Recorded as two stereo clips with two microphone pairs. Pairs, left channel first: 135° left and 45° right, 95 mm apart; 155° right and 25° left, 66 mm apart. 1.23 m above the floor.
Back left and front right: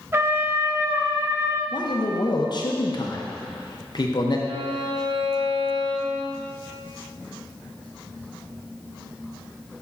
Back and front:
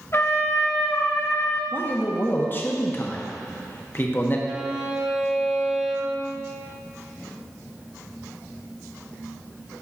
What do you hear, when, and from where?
0.1 s a trumpet: 110° right, 0.6 m
1.7 s a man speaking: 155° left, 0.9 m
4.5 s a violin: 50° right, 0.6 m